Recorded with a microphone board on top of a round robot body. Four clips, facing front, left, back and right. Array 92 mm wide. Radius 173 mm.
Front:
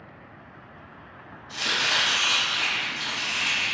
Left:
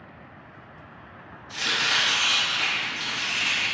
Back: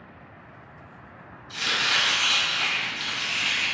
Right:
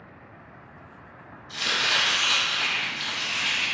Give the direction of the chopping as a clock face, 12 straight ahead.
11 o'clock.